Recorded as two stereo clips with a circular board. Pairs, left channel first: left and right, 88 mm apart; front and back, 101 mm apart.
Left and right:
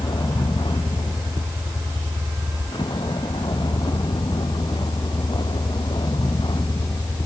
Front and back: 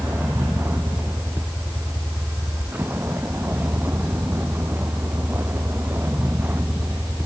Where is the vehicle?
115° left.